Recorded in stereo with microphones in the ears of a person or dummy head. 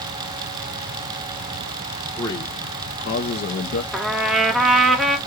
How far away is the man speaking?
About 1.4 m.